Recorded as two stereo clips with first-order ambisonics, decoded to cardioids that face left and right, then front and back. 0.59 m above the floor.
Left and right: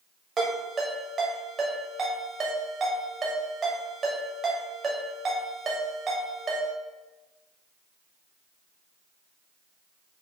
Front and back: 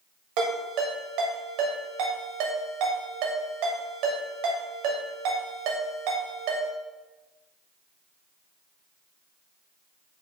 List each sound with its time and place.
0.4 s a ringtone: 160° right, 1.5 m